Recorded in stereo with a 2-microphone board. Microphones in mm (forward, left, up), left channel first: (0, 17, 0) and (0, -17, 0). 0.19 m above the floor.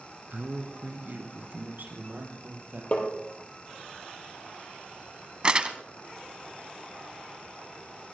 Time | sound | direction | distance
0.3 | a man speaking | 55° right (ahead or behind) | 1.8 m
2.9 | tapping | 40° left (ahead or behind) | 3.5 m
5.4 | crumpling | 30° right (ahead or behind) | 1.1 m